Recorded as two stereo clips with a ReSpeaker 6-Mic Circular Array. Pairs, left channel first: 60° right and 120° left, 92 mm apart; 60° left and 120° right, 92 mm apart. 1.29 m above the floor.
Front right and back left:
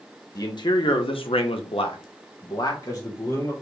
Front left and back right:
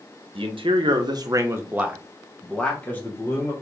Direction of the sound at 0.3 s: 105° right.